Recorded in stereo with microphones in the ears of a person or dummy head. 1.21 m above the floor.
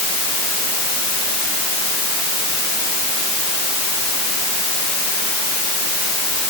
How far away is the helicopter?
I don't hear a helicopter.